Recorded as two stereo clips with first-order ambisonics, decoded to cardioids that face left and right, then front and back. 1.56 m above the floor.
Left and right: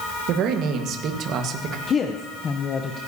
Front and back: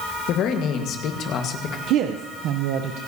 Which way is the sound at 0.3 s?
45° right.